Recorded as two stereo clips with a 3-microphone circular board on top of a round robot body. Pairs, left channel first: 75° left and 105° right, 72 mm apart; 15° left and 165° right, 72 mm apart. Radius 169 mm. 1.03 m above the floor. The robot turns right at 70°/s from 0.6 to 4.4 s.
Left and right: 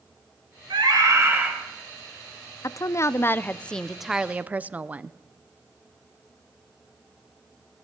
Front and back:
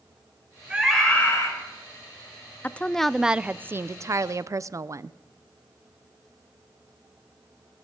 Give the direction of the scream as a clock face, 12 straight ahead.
3 o'clock.